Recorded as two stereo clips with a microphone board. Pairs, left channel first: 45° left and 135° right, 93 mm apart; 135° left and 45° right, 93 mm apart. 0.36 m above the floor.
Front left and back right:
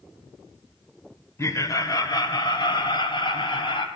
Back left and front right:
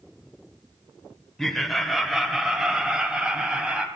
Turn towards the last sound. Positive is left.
turn(degrees=35)